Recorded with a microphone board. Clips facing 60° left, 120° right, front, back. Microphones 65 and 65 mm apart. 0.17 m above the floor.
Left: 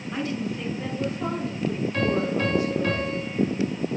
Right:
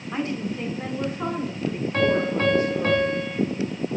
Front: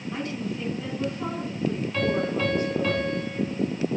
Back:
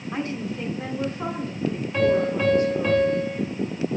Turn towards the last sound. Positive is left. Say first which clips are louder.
# right 4 dB, back 7 dB
turn(degrees=-110)